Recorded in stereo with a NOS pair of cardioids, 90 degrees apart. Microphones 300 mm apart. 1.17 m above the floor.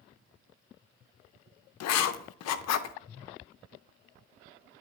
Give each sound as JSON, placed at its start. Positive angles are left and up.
{"t": 1.8, "sound": "writing", "azimuth_deg": 60, "distance_m": 0.5}